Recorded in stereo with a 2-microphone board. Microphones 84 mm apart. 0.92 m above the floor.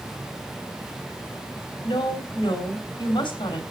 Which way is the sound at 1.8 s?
75° left (ahead or behind).